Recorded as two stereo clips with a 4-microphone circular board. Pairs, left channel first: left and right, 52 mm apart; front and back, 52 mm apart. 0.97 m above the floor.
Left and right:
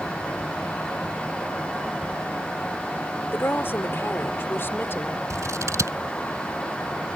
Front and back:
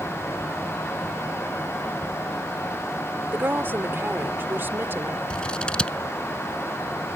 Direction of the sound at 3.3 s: 130° left.